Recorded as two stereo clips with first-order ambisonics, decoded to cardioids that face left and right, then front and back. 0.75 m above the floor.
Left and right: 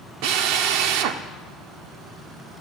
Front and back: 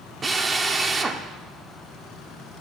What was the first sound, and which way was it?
A drill, 105° right.